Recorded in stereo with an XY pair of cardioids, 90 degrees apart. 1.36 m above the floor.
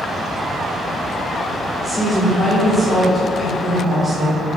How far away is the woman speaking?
About 1.8 m.